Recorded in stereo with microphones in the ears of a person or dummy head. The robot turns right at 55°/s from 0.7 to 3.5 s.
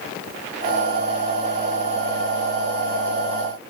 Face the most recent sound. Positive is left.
No sound to turn to.